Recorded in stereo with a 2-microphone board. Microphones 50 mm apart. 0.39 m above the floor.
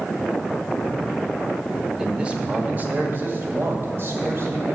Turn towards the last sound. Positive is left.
turn(degrees=-60)  # may be behind; listen again after turning